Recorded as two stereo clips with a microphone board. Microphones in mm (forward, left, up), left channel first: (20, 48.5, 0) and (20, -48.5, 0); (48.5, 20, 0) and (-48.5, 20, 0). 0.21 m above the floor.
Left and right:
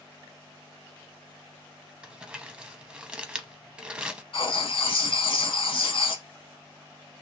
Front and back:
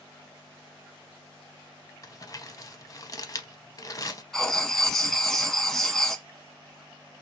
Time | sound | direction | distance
2.0 | crumpling | 15° right | 0.6 m
4.3 | writing | 85° left | 0.7 m